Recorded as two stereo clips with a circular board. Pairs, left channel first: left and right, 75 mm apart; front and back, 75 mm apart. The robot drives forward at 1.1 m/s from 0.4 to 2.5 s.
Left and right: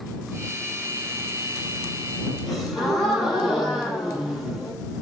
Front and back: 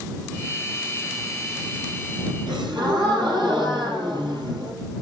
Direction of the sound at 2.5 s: Straight behind.